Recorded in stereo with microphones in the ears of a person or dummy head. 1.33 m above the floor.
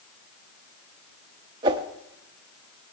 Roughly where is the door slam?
No door slam in this recording.